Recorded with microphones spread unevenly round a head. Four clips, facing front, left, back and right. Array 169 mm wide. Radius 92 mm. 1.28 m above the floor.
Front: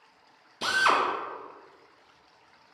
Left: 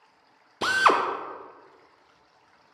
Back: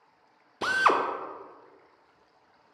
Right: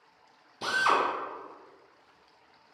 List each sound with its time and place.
0.6 s a drill: 95° left, 0.6 m